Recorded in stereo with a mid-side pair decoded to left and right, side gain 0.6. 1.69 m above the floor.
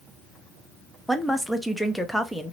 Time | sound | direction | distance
1.1 | a woman speaking | 5° left | 0.8 m